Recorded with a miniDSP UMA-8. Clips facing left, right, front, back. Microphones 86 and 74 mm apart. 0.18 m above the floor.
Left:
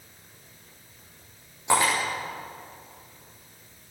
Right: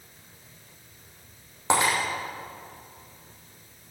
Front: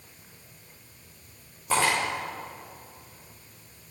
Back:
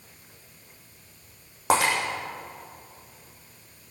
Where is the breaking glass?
160° right, 4.5 m.